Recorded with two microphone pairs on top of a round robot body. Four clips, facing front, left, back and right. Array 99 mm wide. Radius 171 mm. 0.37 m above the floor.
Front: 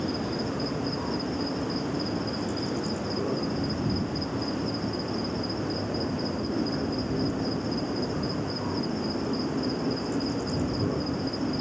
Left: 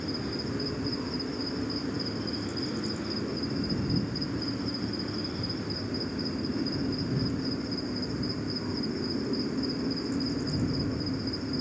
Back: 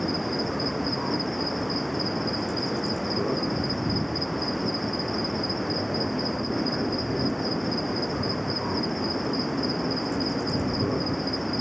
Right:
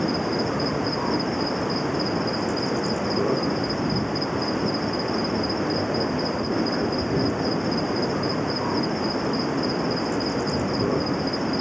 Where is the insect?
110° right.